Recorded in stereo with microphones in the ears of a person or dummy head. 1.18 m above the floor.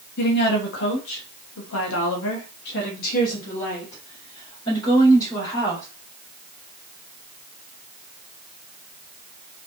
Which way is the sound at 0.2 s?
60° left (ahead or behind).